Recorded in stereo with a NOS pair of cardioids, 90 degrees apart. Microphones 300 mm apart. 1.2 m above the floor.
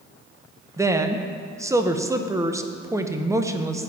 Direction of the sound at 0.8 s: 10° right.